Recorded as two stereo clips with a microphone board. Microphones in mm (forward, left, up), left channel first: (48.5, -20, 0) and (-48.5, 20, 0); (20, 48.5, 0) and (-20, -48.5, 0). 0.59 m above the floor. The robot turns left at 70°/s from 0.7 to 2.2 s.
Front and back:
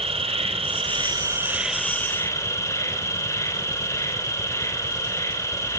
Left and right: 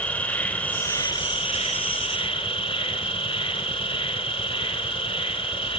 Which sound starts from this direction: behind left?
An insect, at 0.0 s.